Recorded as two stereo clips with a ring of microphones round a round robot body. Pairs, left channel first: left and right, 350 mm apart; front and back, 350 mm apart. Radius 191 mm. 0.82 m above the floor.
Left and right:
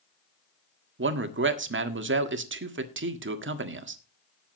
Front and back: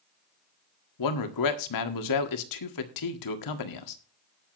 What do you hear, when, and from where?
1.0 s a man speaking: 35° right, 1.6 m